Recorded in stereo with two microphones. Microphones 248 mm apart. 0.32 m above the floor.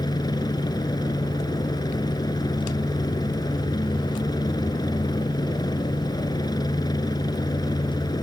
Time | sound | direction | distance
0.0 | a helicopter | 15° left (ahead or behind) | ?